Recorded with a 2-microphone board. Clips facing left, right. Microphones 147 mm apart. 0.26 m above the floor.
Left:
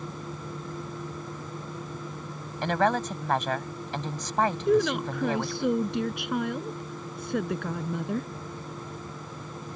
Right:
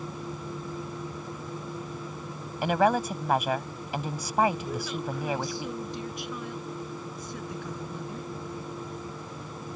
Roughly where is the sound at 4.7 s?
Left.